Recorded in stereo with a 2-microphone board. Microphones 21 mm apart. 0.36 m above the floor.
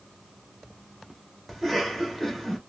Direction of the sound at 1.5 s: 5° left (ahead or behind).